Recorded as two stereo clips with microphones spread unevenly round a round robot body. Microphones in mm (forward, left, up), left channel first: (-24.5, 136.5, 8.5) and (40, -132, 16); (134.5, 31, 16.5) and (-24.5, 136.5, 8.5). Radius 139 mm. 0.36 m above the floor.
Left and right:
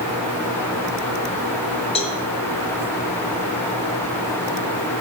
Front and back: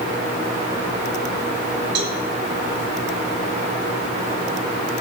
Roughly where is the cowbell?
Behind.